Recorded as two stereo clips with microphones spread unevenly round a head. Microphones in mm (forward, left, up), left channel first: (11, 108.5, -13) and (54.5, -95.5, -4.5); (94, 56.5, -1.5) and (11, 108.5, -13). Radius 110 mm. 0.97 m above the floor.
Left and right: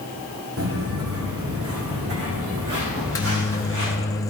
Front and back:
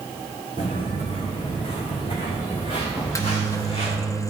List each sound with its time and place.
0.6 s footsteps: 75° right, 3 m; by 4.0 s 65° right, 4.5 m
3.0 s a microwave: 25° left, 1.1 m